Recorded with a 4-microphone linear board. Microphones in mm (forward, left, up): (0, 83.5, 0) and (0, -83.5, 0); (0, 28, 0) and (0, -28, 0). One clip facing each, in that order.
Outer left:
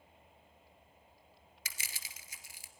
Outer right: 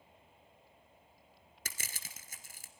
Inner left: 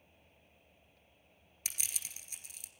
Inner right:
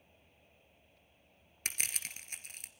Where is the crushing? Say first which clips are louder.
Outer right 3 dB, inner right 6 dB; 50° right (ahead or behind), 1.5 m.